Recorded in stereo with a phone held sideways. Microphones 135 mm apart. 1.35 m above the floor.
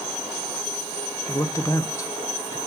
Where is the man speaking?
25° left (ahead or behind), 0.8 m.